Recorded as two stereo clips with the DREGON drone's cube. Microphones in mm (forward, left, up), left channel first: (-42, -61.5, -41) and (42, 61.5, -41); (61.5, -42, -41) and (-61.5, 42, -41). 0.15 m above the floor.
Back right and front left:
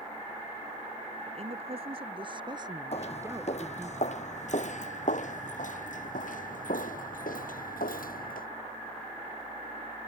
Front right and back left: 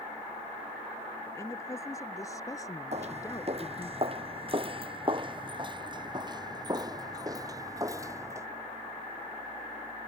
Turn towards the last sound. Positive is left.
turn(degrees=-145)